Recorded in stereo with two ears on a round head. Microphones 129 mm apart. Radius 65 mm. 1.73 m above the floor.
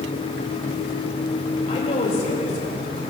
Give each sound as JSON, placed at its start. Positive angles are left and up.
{"t": 1.7, "sound": "a woman speaking", "side_deg": 45, "distance_m": 8.0}